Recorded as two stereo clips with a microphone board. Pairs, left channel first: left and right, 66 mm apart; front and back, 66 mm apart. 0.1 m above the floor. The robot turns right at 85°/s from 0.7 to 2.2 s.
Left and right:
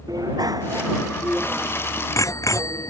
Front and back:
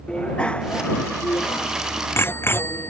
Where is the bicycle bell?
75° right; by 2.9 s 55° left.